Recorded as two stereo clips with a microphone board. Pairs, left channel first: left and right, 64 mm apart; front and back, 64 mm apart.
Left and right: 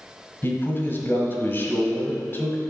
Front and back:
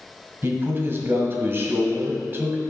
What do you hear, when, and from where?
0.4 s a man speaking: 135° left, 1.5 m